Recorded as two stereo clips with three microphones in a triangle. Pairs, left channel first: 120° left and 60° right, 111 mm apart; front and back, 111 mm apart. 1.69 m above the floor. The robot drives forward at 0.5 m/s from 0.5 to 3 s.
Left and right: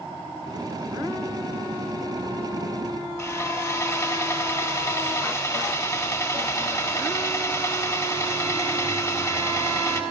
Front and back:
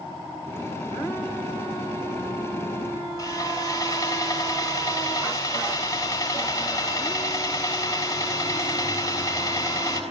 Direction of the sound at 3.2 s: 60° left.